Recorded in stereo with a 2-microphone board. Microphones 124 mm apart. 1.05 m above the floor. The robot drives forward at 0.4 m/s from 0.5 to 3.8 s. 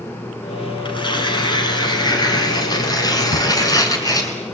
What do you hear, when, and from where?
0.8 s tearing paper: 40° left (ahead or behind), 3 m; by 4.3 s 30° left (ahead or behind), 4 m
3.3 s a drawer: 60° left (ahead or behind), 3.5 m